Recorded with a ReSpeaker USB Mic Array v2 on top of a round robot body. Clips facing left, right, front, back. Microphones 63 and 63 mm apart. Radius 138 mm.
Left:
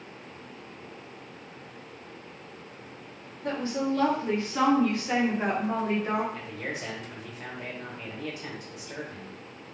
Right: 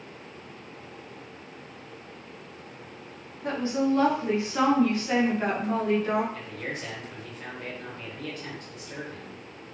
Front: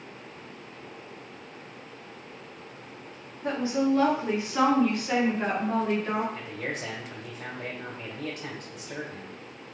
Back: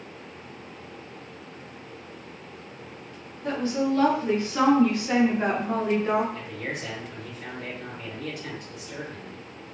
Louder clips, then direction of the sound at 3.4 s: Right 3 dB, even; 50° right.